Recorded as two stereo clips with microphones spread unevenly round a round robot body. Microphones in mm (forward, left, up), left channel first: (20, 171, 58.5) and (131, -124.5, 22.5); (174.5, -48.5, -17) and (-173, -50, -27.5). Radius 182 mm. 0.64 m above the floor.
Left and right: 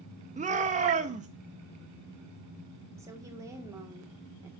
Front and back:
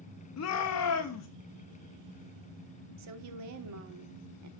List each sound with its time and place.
0.4 s a shout: 20° right, 0.6 m
3.0 s a woman speaking: 145° right, 1.1 m